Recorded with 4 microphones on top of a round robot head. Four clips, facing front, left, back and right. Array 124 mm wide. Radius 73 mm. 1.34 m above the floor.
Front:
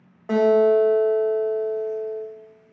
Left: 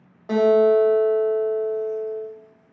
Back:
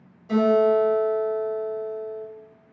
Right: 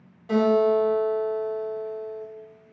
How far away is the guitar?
About 1.0 m.